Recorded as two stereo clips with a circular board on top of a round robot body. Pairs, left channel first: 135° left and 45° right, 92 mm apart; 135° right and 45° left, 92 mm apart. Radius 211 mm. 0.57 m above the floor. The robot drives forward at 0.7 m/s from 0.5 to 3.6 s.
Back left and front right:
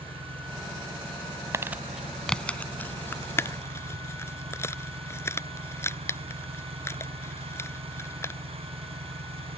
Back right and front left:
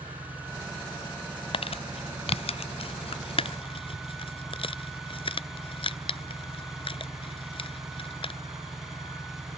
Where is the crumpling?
110° right; by 8.3 s 160° right.